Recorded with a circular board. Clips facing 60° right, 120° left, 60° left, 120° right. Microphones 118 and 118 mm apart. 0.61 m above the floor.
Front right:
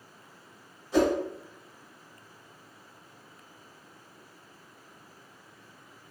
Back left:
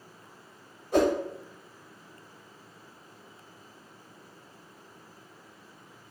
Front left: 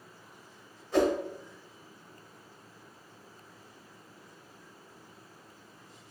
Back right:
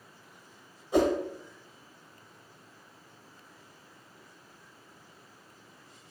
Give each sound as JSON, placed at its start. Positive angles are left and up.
{"t": 0.9, "sound": "a whoosh", "azimuth_deg": 165, "distance_m": 0.9}